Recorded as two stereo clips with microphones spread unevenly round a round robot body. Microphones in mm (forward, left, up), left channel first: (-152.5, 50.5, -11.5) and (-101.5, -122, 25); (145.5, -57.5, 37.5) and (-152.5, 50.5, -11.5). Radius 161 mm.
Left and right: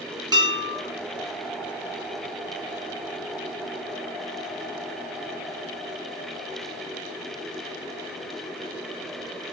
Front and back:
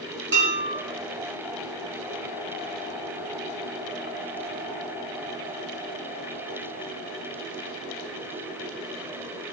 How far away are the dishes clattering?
About 6.5 m.